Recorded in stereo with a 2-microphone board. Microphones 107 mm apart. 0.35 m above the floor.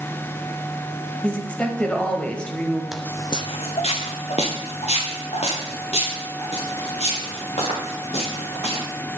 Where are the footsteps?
5° right (ahead or behind), 0.6 m; by 8.8 s 85° left, 8 m.